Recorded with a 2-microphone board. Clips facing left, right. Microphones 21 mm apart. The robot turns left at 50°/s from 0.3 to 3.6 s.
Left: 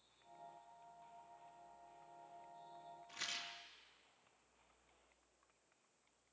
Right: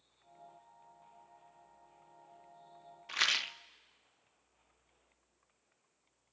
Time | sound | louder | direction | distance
3.1 | a rattle | right 15 dB | 55° right (ahead or behind) | 0.5 m